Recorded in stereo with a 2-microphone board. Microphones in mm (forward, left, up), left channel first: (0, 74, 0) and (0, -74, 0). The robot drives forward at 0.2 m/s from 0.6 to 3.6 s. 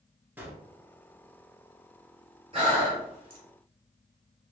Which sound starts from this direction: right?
Breathing, at 2.5 s.